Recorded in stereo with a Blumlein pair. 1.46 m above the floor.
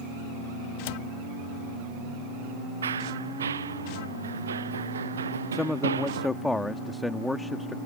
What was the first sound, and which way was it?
A cupboard door, 50° left.